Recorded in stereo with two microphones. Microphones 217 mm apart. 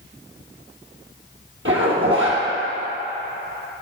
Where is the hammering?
I don't hear hammering.